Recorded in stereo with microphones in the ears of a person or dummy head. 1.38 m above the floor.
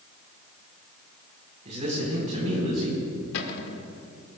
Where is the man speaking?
35° right (ahead or behind), 4.5 m.